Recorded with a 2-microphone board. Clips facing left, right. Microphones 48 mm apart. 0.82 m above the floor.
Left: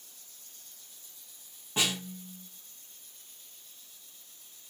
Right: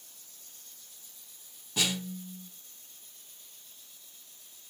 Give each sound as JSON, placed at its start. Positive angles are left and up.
{"t": 1.8, "sound": "a snare drum", "side_deg": 30, "distance_m": 0.9}